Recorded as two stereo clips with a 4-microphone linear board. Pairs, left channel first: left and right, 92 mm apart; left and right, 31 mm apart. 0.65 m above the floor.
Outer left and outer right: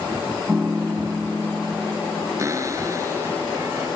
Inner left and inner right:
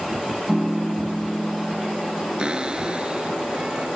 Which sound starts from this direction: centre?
A piano, at 0.5 s.